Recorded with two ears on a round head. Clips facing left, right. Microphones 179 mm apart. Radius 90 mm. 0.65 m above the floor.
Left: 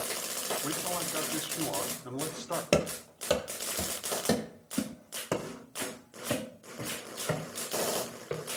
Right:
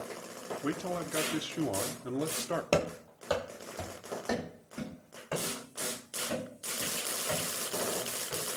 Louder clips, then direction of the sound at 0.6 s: Right 2 dB; 30° right (ahead or behind).